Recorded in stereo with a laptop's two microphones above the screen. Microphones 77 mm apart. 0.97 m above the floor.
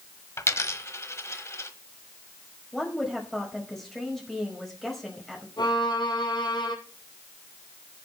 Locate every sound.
0.4 s a dropped coin: 35° left (ahead or behind), 1.3 m
2.7 s a woman speaking: 5° left (ahead or behind), 5 m
5.6 s a violin: 75° left (ahead or behind), 4 m